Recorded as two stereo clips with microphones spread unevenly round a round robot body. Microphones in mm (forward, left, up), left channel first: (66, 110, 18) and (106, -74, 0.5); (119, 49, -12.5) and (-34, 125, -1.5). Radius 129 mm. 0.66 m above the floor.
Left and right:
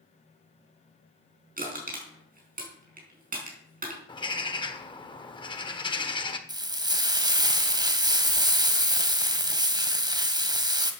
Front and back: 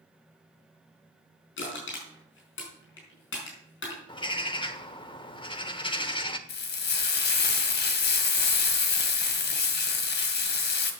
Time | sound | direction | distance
1.6 | crushing | 35° right | 5 m
4.1 | a bird | 35° left | 1.4 m
6.5 | frying | 10° right | 1.8 m